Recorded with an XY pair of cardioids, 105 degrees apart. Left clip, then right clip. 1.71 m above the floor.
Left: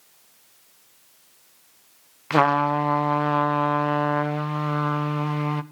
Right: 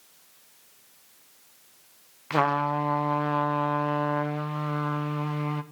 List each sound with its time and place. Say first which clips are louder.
2.3 s a trumpet: left 5 dB; 35° left, 0.6 m